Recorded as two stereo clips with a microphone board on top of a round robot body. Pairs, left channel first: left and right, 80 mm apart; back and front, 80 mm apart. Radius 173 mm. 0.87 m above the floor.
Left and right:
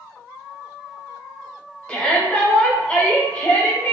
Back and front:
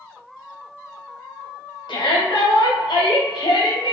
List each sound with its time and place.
1.9 s a shout: 170° left, 1.8 m